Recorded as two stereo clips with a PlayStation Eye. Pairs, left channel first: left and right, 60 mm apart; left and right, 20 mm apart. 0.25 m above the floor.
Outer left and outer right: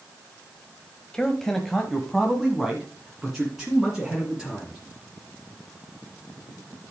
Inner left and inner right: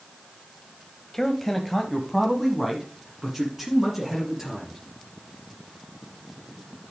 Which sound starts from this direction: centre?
A man speaking, at 1.1 s.